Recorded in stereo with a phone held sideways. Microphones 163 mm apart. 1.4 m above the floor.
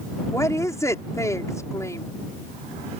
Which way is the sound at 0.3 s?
20° left (ahead or behind).